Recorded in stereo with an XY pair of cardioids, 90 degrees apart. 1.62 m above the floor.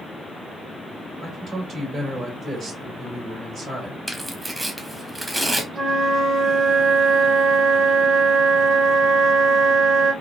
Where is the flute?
50° right, 1.9 m.